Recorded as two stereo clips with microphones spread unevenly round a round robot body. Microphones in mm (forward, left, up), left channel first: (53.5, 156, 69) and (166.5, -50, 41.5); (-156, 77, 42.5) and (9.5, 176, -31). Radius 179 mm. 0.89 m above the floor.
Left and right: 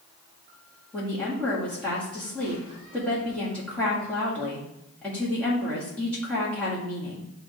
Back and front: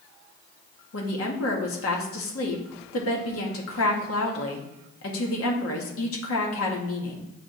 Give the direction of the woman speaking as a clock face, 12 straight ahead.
5 o'clock.